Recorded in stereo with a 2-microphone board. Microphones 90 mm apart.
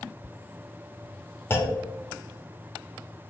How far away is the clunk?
About 0.8 m.